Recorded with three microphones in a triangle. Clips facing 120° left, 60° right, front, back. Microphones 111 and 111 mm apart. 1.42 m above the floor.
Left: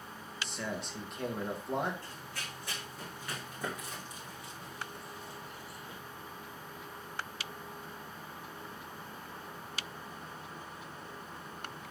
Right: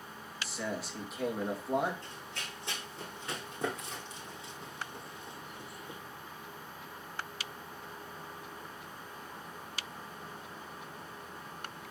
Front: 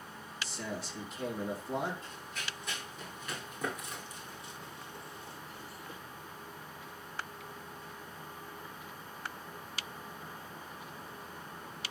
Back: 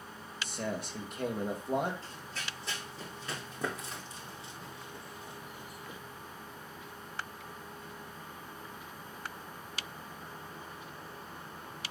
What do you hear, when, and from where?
0.4 s a man speaking: 145° right, 2 m
2.0 s running footsteps: 125° right, 3.5 m; by 6.0 s 115° right, 1.8 m